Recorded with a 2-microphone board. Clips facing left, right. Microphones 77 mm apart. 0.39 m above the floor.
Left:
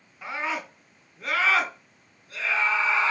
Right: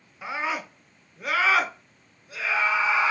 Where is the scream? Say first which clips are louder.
Right 1 dB; 10° right (ahead or behind), 1.5 m.